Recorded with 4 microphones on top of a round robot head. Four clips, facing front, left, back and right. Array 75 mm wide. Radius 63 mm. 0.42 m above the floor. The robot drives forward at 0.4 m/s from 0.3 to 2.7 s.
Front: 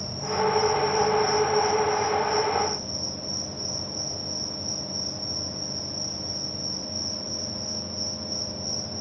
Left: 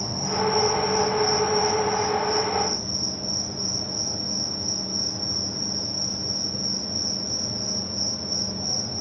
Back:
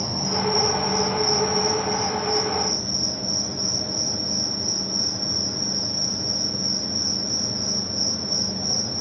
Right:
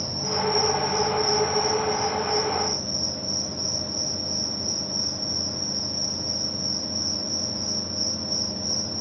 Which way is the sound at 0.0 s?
160° left.